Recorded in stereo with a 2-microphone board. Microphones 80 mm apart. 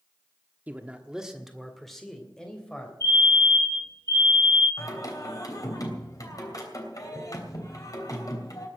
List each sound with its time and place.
0.7 s a man speaking: 20° right (ahead or behind), 1.3 m; by 2.9 s 10° left (ahead or behind), 3 m
3.0 s a fire alarm: 50° right (ahead or behind), 10 m
4.8 s singing: 45° left (ahead or behind), 3 m